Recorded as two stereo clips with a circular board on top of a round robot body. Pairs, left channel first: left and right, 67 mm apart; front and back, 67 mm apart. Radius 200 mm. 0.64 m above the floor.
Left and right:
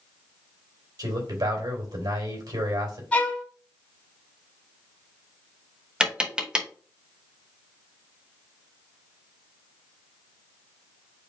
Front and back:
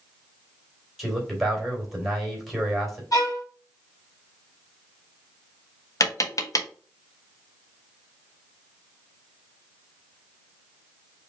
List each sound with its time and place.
1.0 s a man speaking: 90° right, 3 m
3.1 s a violin: 20° left, 3 m
6.0 s tapping: 15° right, 1.6 m